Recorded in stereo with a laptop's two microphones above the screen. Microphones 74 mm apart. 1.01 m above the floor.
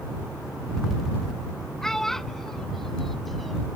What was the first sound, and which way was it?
A child speaking, 5° left (ahead or behind).